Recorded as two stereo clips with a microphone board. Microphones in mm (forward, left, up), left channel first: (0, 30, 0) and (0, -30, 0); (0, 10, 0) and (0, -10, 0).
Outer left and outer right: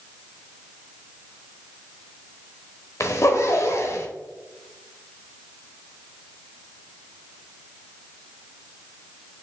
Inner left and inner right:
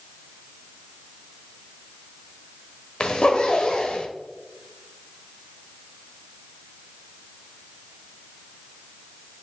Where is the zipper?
55° left (ahead or behind), 0.9 m.